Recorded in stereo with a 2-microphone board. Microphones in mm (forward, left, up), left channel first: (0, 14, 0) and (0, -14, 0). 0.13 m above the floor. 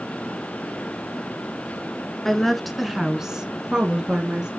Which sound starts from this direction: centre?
A woman speaking, at 2.2 s.